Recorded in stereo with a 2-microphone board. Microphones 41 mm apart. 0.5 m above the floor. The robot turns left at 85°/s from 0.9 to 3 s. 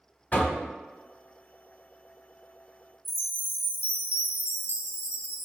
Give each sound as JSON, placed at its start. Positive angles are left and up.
{"t": 0.3, "sound": "knocking", "side_deg": 35, "distance_m": 0.7}
{"t": 3.0, "sound": "a chime", "side_deg": 65, "distance_m": 0.7}